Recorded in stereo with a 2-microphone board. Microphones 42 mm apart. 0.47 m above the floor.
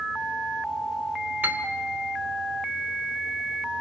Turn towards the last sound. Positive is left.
turn(degrees=-50)  # may be behind; listen again after turning